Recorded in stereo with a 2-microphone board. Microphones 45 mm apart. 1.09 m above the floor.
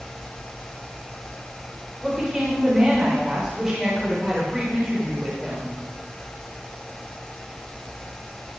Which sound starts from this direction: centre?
A woman speaking, at 2.0 s.